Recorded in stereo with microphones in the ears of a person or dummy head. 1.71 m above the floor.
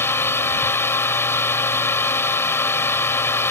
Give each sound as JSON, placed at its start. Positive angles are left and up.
{"t": 0.0, "sound": "a drone", "side_deg": 10}